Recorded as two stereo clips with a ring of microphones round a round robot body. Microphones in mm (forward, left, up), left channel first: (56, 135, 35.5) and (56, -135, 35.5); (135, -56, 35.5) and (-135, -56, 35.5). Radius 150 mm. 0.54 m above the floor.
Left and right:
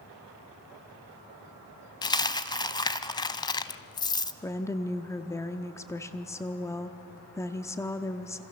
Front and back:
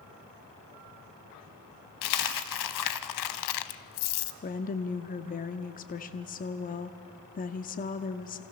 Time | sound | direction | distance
2.0 | a dropped coin | 15° left | 0.8 m
4.4 | a woman speaking | 20° left | 0.9 m